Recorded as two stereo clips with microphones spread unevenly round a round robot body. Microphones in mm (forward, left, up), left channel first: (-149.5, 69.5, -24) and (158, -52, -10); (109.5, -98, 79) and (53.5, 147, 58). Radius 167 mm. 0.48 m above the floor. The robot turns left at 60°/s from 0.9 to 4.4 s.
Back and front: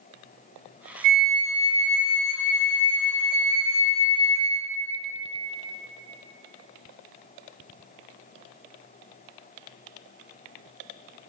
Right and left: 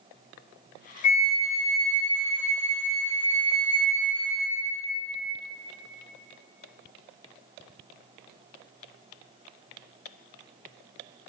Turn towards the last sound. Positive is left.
turn(degrees=70)